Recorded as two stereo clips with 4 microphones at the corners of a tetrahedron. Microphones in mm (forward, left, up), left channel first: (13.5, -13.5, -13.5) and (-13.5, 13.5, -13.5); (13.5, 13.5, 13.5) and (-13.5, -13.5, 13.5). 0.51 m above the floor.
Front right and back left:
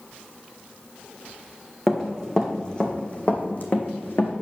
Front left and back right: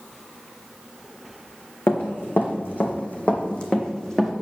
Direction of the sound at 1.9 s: 35° left.